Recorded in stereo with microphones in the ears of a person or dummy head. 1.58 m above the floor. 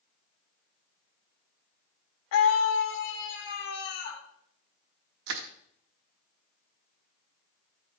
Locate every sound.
2.3 s a scream: 70° left (ahead or behind), 0.9 m; by 4.2 s 55° left (ahead or behind), 2.5 m
5.3 s crushing: 75° right (ahead or behind), 1.0 m